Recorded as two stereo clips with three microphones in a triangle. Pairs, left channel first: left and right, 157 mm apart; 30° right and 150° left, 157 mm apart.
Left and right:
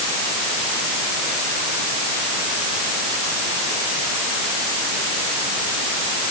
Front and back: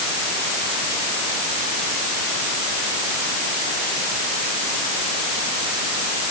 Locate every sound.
Only background noise.